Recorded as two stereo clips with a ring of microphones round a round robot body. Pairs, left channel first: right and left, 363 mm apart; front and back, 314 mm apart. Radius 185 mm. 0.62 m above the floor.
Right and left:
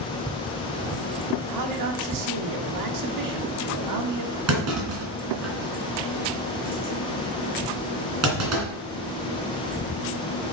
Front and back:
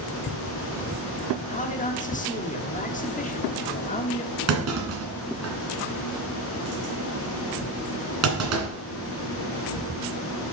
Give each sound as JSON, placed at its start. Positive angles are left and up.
{"t": 1.5, "sound": "a man speaking", "azimuth_deg": 65, "distance_m": 1.4}
{"t": 4.5, "sound": "a clunk", "azimuth_deg": 140, "distance_m": 3.0}